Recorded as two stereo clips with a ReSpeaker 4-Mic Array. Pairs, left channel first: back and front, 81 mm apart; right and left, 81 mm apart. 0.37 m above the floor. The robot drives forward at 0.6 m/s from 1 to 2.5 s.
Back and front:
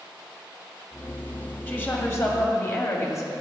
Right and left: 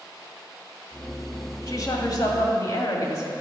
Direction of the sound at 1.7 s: 115° right.